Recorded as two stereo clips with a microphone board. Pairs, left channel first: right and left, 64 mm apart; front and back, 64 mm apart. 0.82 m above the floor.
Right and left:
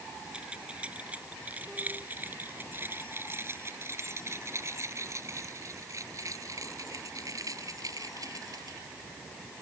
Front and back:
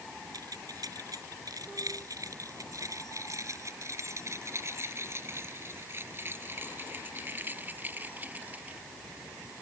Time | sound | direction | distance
0.3 | keys jangling | 165° left | ?